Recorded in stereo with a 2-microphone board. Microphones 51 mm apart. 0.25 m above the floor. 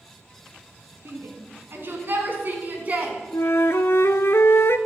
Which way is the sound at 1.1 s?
55° right (ahead or behind).